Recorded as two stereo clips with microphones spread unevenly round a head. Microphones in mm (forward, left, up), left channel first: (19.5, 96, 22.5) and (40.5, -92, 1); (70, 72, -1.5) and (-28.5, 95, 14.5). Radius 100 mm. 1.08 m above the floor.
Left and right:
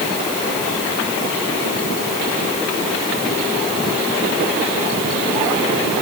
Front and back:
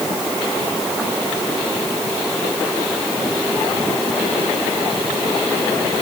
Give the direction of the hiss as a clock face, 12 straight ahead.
No hiss in this recording.